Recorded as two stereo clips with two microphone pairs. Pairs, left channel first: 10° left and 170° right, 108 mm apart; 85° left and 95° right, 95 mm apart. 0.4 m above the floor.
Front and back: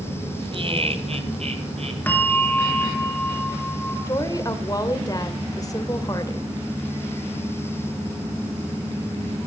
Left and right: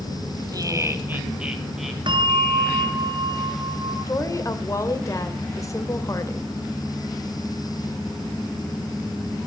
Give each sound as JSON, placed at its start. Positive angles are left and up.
{"t": 0.5, "sound": "laughter", "azimuth_deg": -140, "distance_m": 2.0}
{"t": 2.1, "sound": "a bell", "azimuth_deg": -70, "distance_m": 2.5}
{"t": 4.1, "sound": "a woman speaking", "azimuth_deg": 45, "distance_m": 1.8}